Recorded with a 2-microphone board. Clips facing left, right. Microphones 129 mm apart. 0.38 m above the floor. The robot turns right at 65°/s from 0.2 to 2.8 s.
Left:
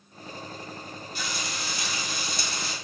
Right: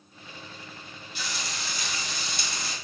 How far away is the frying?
About 1.4 m.